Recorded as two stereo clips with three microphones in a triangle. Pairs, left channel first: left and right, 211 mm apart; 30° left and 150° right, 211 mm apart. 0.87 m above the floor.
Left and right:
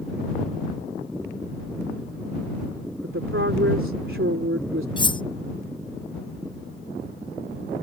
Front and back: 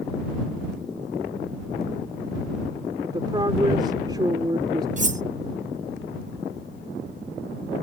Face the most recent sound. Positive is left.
turn(degrees=160)